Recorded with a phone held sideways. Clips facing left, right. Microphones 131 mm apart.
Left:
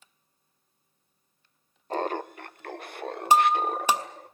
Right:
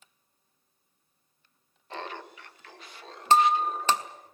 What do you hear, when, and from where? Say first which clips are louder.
1.9 s laughter: left 10 dB; 40° left (ahead or behind), 0.8 m; by 4.3 s 60° left (ahead or behind), 1.8 m
3.3 s breaking glass: even; 10° left (ahead or behind), 1.1 m